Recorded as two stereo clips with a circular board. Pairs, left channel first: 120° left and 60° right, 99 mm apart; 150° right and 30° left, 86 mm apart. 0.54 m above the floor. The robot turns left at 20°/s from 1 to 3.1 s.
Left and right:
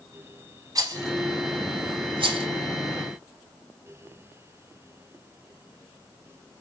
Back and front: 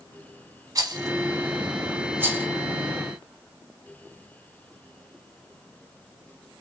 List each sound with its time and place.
0.8 s a rattle: 10° right, 0.8 m; by 2.5 s 40° right, 0.8 m